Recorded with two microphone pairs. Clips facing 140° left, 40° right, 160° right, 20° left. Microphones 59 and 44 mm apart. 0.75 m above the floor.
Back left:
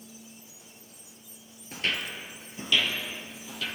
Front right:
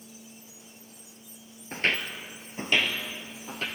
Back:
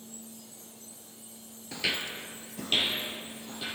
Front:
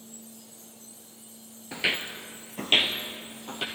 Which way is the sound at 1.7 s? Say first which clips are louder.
Front right 3 dB, front 3 dB; 35° right.